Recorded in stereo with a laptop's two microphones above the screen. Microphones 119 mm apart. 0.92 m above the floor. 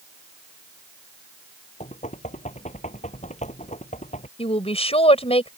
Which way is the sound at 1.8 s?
80° left.